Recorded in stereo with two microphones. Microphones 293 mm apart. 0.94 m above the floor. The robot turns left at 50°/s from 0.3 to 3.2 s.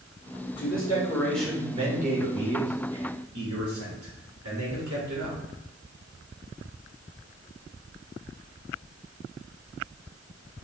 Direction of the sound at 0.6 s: 40° left.